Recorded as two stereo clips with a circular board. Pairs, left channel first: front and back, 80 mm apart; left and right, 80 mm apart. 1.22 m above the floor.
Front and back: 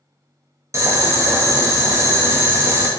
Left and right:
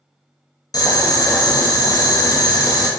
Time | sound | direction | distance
0.7 | boiling | 125° left | 0.5 m